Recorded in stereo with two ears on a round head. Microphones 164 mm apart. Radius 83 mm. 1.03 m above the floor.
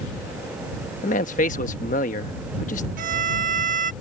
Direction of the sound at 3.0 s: 50° right (ahead or behind).